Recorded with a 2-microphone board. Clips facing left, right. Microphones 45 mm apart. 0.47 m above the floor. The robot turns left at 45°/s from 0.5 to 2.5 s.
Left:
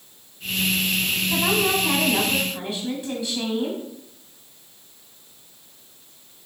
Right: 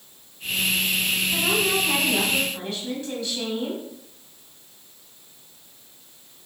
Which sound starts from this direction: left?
A woman speaking, at 1.3 s.